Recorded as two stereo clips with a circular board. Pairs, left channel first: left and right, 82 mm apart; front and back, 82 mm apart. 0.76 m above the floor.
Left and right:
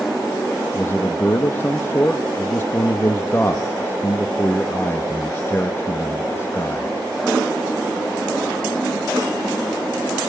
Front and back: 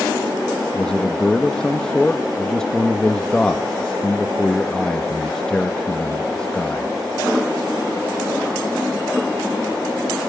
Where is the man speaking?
75° left, 1.1 m.